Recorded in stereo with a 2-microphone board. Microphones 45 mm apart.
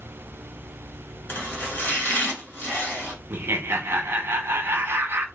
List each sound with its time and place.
1.3 s chopping: 40° left (ahead or behind), 2 m
3.3 s laughter: 60° right (ahead or behind), 0.8 m